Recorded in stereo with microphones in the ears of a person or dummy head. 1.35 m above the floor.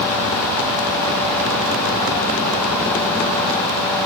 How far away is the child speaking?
I don't hear a child speaking.